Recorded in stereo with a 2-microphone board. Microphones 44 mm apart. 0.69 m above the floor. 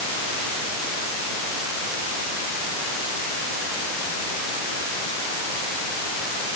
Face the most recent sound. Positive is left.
No sound to turn to.